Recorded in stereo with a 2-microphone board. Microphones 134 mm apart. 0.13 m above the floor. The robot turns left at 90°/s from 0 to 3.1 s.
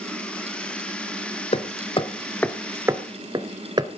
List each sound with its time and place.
1.5 s hammering: 50° left (ahead or behind), 0.7 m; by 3.9 s 35° right (ahead or behind), 0.7 m